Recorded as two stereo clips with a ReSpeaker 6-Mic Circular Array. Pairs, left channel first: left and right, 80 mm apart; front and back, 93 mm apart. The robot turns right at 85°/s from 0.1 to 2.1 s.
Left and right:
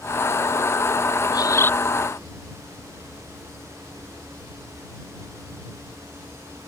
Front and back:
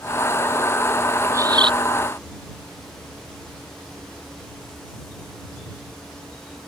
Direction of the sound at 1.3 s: 120° left.